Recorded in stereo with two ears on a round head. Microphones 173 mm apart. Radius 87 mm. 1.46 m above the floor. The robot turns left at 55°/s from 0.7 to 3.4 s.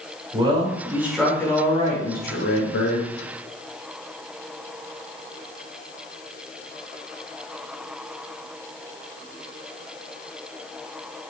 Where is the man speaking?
155° right, 5 m; by 3.1 s 75° left, 5 m.